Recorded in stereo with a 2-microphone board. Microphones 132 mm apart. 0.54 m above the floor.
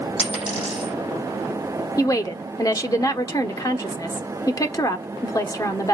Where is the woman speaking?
30° left (ahead or behind), 1.2 m.